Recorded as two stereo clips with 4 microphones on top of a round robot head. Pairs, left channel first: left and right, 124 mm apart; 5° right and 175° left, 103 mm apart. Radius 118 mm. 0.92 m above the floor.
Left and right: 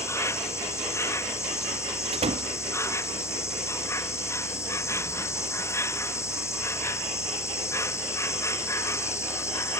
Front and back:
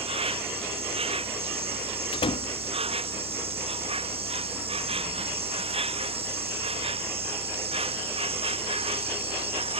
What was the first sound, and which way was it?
An insect, 160° left.